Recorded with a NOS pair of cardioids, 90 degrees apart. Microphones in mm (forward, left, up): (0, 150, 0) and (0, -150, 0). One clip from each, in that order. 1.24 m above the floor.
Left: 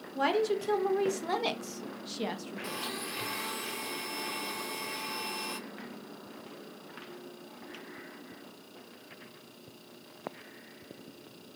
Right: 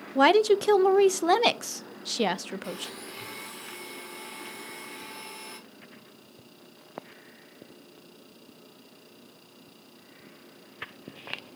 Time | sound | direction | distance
0.1 | a woman speaking | 55° right | 0.7 m
2.6 | a blender | 30° left | 2.5 m